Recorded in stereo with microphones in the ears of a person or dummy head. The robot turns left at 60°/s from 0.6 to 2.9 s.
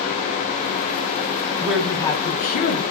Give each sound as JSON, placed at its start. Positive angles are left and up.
{"t": 1.6, "sound": "a woman speaking", "azimuth_deg": -170, "distance_m": 0.7}